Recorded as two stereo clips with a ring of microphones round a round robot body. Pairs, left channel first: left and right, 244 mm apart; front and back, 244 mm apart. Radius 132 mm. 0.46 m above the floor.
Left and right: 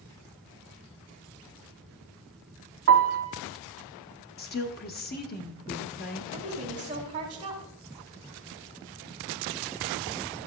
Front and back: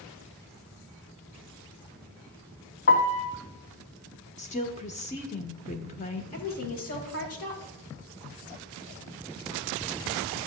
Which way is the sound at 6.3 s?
20° right.